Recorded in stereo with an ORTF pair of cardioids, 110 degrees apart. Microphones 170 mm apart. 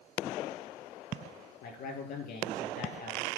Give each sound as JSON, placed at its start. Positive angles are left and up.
{"t": 1.6, "sound": "a man speaking", "azimuth_deg": 60, "distance_m": 2.5}